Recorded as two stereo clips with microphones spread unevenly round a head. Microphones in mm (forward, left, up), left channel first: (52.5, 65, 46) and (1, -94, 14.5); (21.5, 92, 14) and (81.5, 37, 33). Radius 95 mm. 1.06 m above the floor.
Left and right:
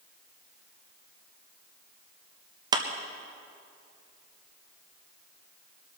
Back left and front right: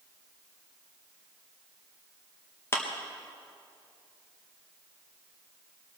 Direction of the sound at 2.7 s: 165° right.